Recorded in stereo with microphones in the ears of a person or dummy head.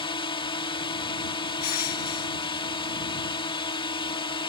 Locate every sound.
0.0 s a drone: 30° left (ahead or behind)
1.6 s crushing: 50° left (ahead or behind)